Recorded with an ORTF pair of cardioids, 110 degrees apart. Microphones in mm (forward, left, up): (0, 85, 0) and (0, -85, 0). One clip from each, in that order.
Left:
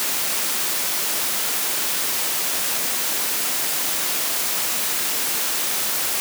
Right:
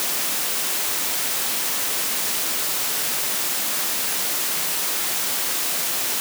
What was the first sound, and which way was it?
Only background noise.